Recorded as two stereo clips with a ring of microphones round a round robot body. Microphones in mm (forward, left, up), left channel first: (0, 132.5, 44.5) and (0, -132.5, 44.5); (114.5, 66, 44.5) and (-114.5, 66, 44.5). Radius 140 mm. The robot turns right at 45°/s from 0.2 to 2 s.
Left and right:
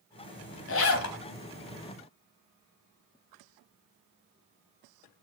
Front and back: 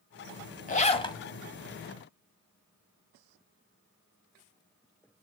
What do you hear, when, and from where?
0.7 s a zipper: 50° left, 1.1 m; by 1.2 s 70° left, 1.1 m